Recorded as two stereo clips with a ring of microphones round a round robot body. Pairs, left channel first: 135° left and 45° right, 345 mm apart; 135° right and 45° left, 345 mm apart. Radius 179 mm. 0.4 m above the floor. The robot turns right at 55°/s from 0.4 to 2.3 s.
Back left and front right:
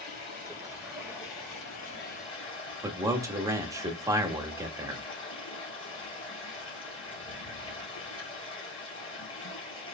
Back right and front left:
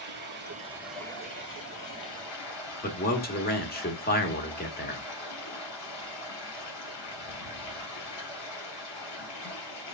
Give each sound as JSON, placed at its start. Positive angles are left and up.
{"t": 0.0, "sound": "running water", "azimuth_deg": 105, "distance_m": 3.0}
{"t": 2.8, "sound": "a man speaking", "azimuth_deg": -115, "distance_m": 1.1}